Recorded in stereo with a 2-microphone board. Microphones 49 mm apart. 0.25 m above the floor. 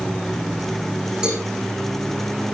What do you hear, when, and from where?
1.2 s a cowbell: 15° right (ahead or behind), 8 m